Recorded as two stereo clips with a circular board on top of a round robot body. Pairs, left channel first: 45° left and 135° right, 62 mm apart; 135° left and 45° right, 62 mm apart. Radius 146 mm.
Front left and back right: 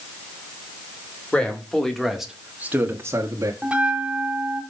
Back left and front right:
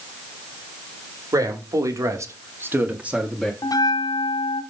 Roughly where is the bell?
Behind left.